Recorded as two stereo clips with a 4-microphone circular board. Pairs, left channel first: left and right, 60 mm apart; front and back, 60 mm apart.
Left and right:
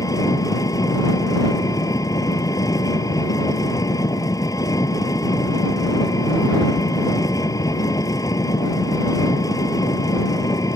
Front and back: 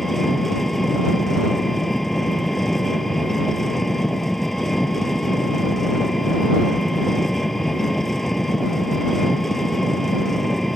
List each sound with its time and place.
0.0 s an engine running: 85° left